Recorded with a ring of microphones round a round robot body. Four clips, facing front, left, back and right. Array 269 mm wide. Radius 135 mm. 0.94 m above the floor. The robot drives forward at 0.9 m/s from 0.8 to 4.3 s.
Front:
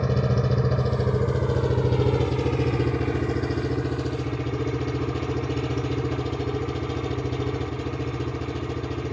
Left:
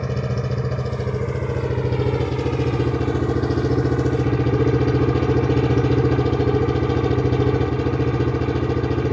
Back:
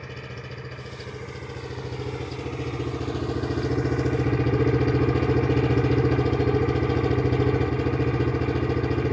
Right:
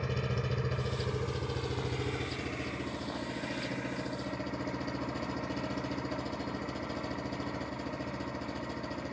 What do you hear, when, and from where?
0.0 s an engine running: 35° left; by 9.1 s 110° left